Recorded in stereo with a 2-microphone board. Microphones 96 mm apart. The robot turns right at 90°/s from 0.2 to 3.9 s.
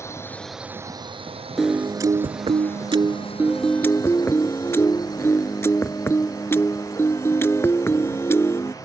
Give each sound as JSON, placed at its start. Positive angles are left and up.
{"t": 0.0, "sound": "a drone", "side_deg": 30}
{"t": 1.6, "sound": "a piano", "azimuth_deg": 180}